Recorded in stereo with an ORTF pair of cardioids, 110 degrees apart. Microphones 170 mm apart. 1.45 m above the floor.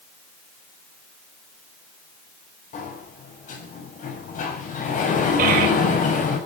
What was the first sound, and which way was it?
A sliding door, 50° left.